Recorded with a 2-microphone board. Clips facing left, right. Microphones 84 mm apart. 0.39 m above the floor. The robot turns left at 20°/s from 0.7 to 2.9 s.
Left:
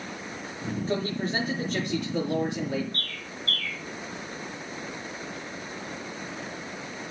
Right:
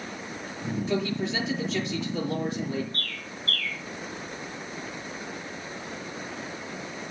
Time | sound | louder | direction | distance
0.9 | a man speaking | even | 140° left | 6.5 m
2.9 | a bird | even | 45° left (ahead or behind) | 5 m